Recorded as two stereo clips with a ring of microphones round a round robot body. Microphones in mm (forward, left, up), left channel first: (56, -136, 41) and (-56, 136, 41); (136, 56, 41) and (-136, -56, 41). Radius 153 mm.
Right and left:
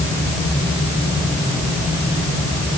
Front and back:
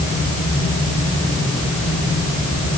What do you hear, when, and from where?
Only background noise.